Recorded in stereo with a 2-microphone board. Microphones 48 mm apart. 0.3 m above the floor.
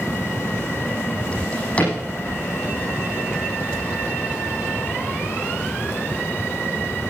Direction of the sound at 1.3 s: 30° left (ahead or behind).